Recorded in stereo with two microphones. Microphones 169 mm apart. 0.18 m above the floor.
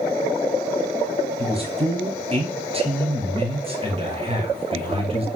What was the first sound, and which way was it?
A man speaking, 35° right (ahead or behind).